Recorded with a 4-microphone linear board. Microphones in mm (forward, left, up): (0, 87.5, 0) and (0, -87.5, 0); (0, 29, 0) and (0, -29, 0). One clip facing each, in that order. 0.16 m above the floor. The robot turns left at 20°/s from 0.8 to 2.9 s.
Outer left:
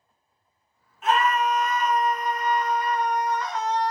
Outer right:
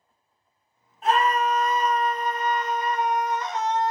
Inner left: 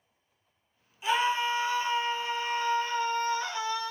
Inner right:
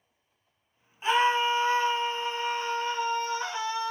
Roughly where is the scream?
Right.